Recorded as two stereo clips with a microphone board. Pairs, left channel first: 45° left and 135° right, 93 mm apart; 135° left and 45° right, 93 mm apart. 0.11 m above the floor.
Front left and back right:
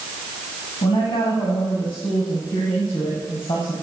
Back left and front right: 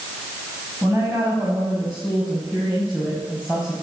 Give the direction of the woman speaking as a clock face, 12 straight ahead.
11 o'clock.